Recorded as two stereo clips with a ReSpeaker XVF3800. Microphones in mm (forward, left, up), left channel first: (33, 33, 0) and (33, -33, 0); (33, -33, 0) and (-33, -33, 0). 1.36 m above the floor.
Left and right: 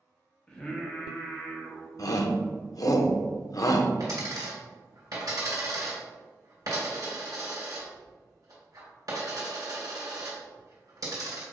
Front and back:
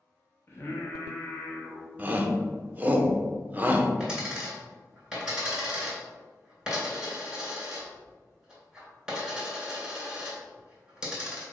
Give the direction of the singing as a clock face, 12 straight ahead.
11 o'clock.